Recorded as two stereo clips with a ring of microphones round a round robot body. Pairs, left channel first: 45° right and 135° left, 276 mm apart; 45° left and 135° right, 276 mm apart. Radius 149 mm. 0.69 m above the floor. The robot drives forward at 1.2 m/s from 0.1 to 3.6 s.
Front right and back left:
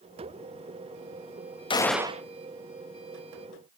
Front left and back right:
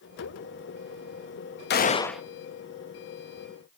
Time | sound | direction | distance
1.7 | a gunshot | 20° left | 0.7 m